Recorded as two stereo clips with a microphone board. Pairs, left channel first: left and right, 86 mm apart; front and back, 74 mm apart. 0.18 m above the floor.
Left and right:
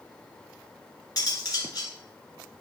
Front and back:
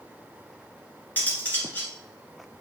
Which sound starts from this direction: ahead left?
Cutlery clinking, at 1.2 s.